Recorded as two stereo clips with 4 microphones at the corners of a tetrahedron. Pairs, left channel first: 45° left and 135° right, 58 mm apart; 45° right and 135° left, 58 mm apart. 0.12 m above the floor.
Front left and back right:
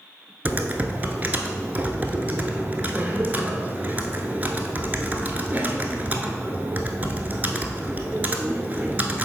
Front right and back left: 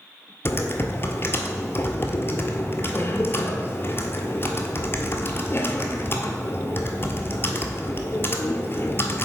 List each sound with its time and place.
0.5 s typing on a keyboard: 80° right, 0.8 m